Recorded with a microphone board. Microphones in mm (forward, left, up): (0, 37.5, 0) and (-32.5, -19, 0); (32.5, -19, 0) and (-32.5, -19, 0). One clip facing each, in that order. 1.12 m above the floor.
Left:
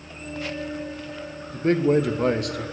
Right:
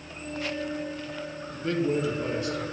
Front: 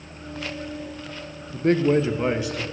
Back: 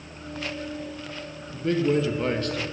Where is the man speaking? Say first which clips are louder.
Left 7 dB, front 4 dB; 15° left, 0.5 m; by 2.6 s 85° left, 0.8 m.